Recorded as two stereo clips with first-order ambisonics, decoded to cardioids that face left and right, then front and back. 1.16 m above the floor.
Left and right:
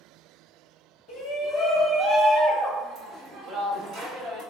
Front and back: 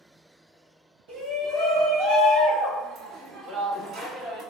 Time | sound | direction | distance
1.1 | a shout | 155° left | 1.2 m